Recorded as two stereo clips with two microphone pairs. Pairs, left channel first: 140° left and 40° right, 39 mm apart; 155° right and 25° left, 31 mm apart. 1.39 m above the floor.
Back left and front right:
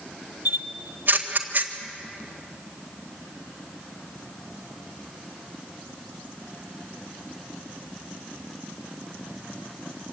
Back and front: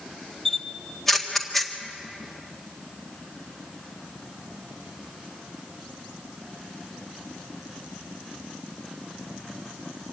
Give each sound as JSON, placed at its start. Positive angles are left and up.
{"t": 0.5, "sound": "a camera shutter", "azimuth_deg": -75, "distance_m": 1.7}